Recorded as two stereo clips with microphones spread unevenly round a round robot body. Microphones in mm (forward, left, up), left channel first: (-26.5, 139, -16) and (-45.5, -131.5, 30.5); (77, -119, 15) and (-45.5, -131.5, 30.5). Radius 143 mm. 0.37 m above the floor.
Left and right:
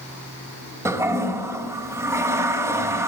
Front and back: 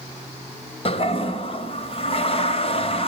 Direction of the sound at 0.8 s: 10° right.